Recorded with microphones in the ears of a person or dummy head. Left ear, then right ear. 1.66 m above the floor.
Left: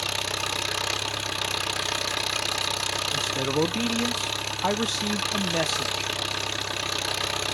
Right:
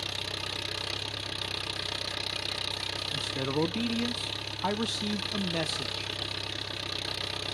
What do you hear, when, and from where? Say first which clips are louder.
0.0 s an engine running: left 7 dB; 35° left (ahead or behind), 0.9 m
3.1 s a man speaking: left 4 dB; 15° left (ahead or behind), 0.7 m